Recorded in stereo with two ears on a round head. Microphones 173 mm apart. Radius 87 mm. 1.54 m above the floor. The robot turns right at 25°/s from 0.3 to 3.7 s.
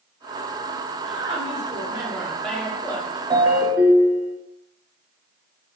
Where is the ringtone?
15° right (ahead or behind), 0.9 m; by 4.4 s 10° right (ahead or behind), 0.9 m.